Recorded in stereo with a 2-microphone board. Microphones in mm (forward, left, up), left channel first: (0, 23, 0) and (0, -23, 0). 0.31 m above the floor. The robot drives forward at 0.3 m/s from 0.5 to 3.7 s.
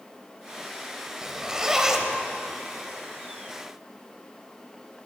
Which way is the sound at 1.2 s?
15° right (ahead or behind).